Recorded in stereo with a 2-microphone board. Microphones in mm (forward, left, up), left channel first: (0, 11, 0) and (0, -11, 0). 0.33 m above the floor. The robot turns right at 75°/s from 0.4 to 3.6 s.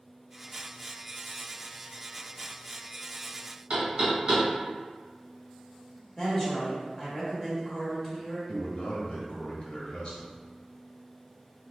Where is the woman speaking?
25° left (ahead or behind), 1.5 m.